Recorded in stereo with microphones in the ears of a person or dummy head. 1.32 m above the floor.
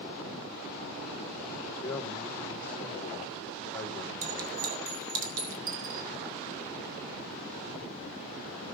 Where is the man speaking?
15° left (ahead or behind), 2.5 m.